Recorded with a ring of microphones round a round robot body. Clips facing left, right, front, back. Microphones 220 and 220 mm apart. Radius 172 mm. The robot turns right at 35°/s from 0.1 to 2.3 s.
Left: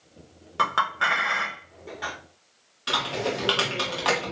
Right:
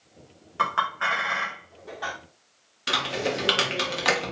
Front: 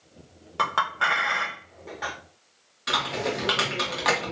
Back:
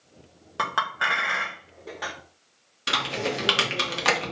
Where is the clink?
95° left, 0.9 m; by 2.1 s 150° left, 0.9 m.